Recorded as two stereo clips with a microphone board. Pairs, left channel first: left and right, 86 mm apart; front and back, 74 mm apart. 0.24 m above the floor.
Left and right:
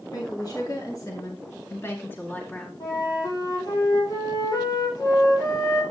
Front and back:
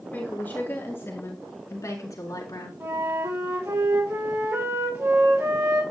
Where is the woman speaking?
65° left, 3.5 m; by 2.7 s 20° left, 3 m.